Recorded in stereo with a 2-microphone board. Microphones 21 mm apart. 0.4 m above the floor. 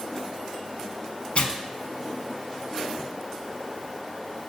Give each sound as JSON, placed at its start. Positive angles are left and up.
{"t": 1.4, "sound": "tearing paper", "side_deg": 65, "distance_m": 0.5}